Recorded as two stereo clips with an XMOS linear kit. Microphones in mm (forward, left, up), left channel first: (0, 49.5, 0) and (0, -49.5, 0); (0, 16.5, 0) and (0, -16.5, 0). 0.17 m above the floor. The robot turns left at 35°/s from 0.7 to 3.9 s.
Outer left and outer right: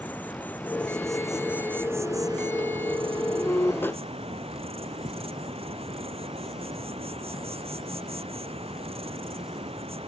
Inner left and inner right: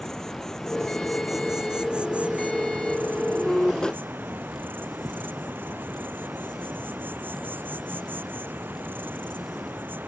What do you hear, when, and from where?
0.0 s an insect: 15° left; by 10.1 s 95° right